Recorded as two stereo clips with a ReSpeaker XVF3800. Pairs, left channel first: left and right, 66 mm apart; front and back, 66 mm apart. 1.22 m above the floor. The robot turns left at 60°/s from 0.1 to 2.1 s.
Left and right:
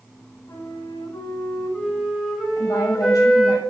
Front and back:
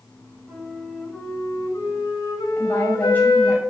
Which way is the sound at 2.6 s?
60° left.